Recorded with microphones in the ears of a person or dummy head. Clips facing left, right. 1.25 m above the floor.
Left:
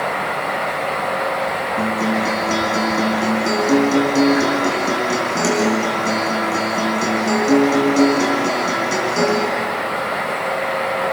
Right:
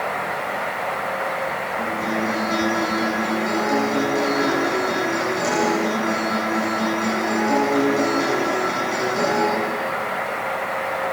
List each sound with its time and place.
1.8 s a guitar: 60° left (ahead or behind), 8 m